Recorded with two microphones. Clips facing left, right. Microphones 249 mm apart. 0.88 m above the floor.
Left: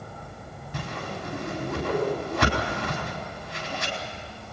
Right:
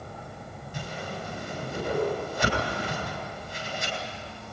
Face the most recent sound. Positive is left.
turn(degrees=70)  # may be behind; listen again after turning